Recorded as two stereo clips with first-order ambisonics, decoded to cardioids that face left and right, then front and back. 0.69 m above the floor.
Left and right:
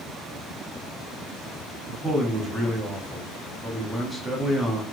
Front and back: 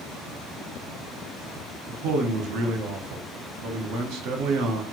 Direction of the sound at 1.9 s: 175° right.